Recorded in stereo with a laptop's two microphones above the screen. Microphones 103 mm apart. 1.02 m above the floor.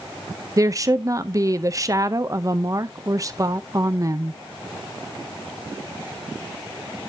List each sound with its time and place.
0.6 s a woman speaking: 35° right (ahead or behind), 0.6 m